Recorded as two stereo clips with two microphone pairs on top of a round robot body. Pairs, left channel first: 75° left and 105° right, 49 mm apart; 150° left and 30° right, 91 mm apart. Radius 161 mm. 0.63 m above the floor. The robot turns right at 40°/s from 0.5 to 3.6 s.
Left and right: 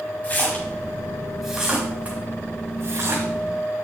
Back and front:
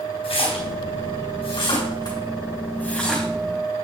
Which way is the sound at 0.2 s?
135° left.